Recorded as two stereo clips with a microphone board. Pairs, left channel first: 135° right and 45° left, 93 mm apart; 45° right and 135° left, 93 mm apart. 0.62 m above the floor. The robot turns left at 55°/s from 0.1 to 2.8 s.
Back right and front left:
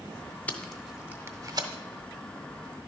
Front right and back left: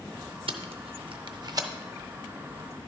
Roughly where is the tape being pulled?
Behind left.